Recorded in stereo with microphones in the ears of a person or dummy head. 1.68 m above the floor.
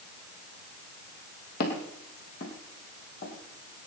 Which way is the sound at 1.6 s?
55° left (ahead or behind).